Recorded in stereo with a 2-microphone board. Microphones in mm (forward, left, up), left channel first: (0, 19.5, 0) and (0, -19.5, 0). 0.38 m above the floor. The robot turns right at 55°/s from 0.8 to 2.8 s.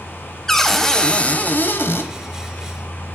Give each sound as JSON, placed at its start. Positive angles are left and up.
{"t": 0.5, "sound": "a cupboard door", "azimuth_deg": 10, "distance_m": 0.8}